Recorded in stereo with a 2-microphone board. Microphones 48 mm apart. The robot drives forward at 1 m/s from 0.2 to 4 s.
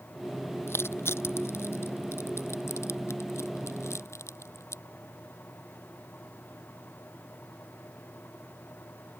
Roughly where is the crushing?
Left.